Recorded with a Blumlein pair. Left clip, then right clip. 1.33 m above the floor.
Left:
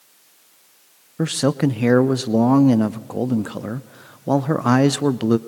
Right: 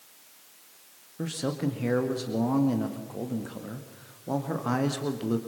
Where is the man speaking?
30° left, 0.8 m.